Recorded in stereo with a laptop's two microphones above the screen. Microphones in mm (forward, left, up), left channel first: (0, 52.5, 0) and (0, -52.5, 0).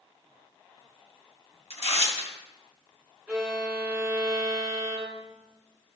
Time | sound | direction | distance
1.7 | tearing paper | 70° left (ahead or behind) | 2.5 m
3.3 | a violin | centre (ahead or behind) | 1.6 m